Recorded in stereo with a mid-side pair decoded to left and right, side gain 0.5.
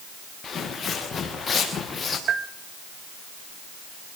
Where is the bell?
55° right, 1.8 m.